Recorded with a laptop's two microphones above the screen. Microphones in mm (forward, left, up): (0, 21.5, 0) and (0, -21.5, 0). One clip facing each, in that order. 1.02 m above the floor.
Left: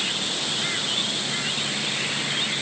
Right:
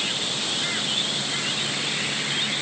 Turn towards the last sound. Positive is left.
No sound to turn to.